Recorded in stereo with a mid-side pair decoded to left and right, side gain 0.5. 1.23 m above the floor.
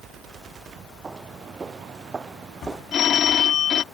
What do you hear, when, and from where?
1.0 s footsteps: 25° right
2.9 s a phone ringing: 55° left